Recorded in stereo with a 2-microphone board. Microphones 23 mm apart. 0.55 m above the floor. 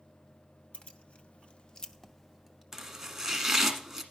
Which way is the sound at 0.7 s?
50° left (ahead or behind).